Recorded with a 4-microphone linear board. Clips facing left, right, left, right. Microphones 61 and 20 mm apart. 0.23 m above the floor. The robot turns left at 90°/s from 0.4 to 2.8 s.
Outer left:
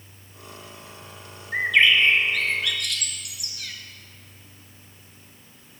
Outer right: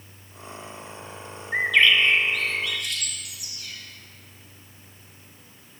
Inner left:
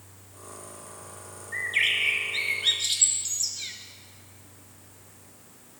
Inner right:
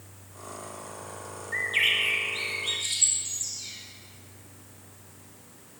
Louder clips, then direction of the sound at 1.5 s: Even, even; 165° right.